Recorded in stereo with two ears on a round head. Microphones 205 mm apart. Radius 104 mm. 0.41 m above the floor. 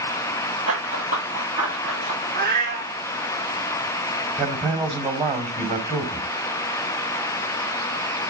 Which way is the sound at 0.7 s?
65° right (ahead or behind).